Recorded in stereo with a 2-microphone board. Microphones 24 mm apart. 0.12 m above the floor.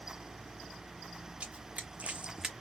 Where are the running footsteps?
50° right (ahead or behind), 1.1 m; by 2.5 s 15° right (ahead or behind), 0.7 m.